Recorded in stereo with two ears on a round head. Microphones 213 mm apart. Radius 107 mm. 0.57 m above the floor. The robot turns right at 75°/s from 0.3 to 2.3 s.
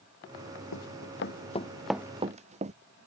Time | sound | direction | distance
0.7 | running footsteps | 85° left | ?